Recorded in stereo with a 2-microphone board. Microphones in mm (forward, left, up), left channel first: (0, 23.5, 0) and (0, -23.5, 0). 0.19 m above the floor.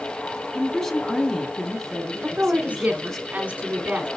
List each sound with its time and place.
0.5 s a woman speaking: 10° left (ahead or behind), 1.7 m
2.2 s a woman speaking: 30° right (ahead or behind), 2.0 m